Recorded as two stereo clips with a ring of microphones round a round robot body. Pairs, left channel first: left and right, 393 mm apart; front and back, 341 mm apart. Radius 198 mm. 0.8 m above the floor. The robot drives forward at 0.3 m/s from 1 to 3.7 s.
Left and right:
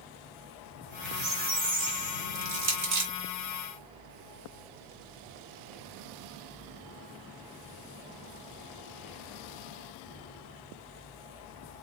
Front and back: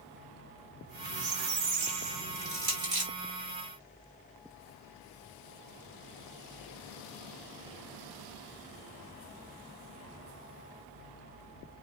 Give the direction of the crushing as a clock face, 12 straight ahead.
4 o'clock.